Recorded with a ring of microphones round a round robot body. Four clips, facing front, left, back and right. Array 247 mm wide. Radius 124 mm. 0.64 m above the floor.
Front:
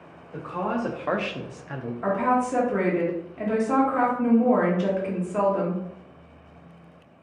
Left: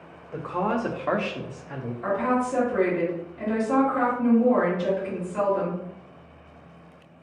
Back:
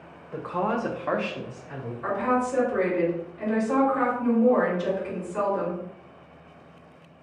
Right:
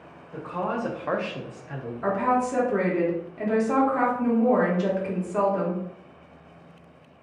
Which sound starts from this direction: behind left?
A woman speaking, at 0.3 s.